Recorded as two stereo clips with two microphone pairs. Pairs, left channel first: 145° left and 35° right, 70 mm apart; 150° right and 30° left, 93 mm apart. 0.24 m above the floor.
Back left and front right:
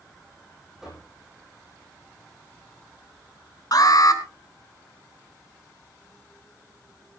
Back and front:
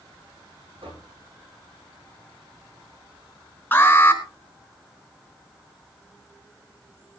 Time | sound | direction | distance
0.8 | knocking | 50° left | 9.5 m
3.7 | an alarm | 145° left | 3.5 m